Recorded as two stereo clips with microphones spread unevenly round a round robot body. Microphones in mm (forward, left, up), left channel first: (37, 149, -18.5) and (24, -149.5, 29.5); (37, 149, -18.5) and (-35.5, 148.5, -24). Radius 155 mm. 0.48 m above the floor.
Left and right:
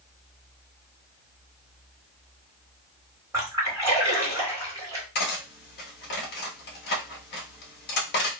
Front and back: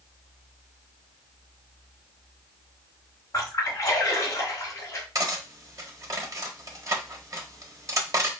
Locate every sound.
3.3 s a splash: 10° right, 1.8 m
5.2 s cutlery clinking: 140° left, 1.2 m